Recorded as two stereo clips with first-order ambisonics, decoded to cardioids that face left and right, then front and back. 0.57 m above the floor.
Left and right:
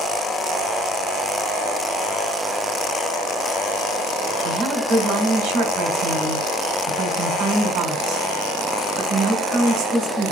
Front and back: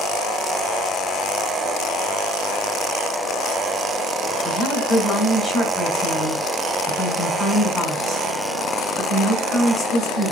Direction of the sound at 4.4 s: 85° right.